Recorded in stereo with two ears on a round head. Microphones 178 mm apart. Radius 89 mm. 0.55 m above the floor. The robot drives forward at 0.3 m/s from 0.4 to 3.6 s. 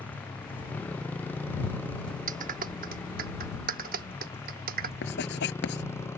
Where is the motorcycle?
10° left (ahead or behind); by 6.2 s 15° left (ahead or behind).